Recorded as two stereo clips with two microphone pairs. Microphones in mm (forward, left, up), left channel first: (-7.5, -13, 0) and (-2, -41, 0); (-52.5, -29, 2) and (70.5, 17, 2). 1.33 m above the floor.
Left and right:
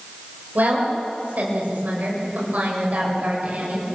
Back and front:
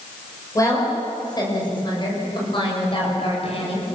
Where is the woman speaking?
95° right, 5.5 m; by 3.9 s 120° right, 6.5 m.